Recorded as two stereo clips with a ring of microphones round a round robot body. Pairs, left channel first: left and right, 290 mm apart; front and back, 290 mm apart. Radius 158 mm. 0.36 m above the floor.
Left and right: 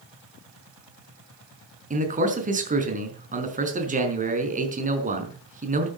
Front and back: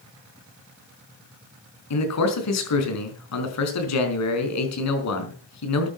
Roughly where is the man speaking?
Ahead right.